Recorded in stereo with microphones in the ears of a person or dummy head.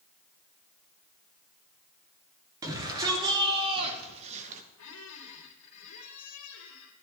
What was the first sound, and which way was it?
A shout, 25° right (ahead or behind).